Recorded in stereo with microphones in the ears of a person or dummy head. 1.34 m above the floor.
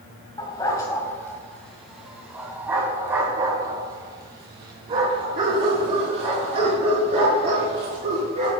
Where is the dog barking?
20° left (ahead or behind), 1.6 m; by 8.5 s 40° right (ahead or behind), 4.5 m.